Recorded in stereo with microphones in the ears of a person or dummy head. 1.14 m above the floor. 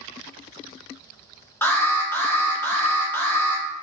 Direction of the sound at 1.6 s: 10° left (ahead or behind).